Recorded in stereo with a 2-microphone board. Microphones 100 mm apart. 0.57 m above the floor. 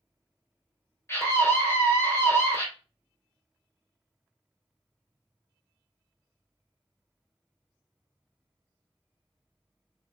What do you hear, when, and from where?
1.1 s a scream: 25° left (ahead or behind), 2 m